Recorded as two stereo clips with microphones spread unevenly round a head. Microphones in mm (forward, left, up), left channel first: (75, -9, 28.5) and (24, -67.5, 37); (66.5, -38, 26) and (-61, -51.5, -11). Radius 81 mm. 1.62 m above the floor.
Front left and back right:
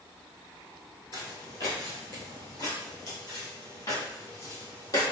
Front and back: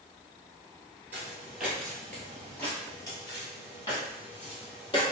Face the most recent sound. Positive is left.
turn(degrees=5)